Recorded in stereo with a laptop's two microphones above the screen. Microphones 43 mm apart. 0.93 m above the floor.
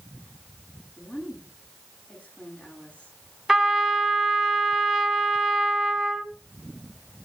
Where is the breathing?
I don't hear breathing.